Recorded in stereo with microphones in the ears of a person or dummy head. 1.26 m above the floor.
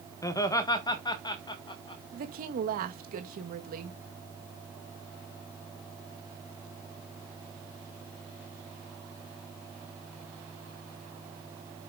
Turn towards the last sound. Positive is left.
turn(degrees=-55)  # may be behind; listen again after turning